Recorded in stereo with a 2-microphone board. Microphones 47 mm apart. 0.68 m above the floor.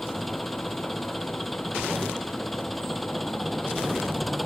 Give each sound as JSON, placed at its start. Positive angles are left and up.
{"t": 0.0, "sound": "an engine running", "side_deg": 0}